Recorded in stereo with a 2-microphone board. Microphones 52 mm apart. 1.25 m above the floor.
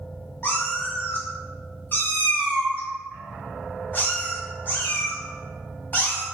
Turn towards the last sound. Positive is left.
turn(degrees=40)  # may be behind; listen again after turning